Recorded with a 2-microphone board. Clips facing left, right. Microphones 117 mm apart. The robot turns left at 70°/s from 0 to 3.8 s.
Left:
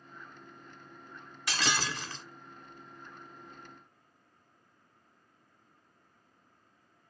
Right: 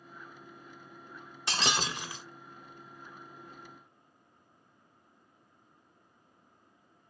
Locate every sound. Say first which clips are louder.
1.5 s breaking glass: right 1 dB; 25° right (ahead or behind), 0.9 m; by 2.2 s 5° right (ahead or behind), 0.9 m